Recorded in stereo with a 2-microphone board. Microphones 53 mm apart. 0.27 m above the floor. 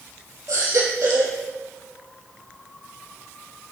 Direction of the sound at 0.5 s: 85° right.